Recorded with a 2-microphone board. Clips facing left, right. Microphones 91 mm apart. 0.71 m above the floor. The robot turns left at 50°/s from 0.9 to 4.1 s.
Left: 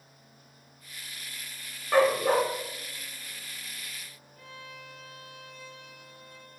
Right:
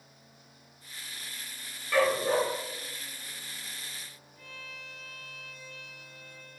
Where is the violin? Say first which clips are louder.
Left 2 dB; 60° left (ahead or behind), 1.9 m.